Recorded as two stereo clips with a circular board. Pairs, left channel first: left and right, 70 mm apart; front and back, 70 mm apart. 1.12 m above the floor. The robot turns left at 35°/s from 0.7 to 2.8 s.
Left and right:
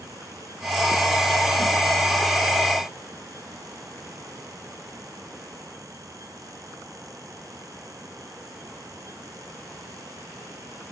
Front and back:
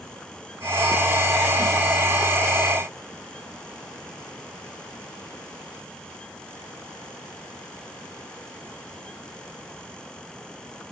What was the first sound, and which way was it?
Only background noise.